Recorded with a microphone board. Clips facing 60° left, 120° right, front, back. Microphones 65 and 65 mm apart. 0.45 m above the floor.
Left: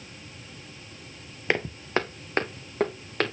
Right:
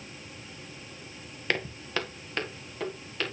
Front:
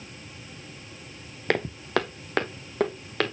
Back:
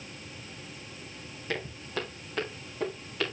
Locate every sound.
1.5 s footsteps: 5° right, 0.9 m; by 3.3 s 25° left, 1.9 m